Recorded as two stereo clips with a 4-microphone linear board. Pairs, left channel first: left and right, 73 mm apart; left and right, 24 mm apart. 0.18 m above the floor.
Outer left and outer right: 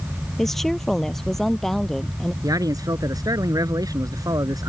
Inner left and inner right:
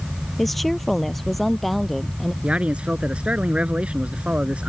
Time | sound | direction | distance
0.4 | a woman speaking | 5° left (ahead or behind) | ?
2.4 | a man speaking | 60° right (ahead or behind) | ?